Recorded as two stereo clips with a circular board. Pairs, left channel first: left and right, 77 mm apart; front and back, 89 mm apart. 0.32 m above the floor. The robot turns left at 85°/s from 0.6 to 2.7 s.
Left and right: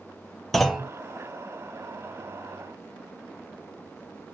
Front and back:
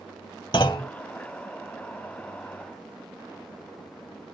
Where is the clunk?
5° left, 0.6 m; by 0.9 s 25° right, 0.6 m.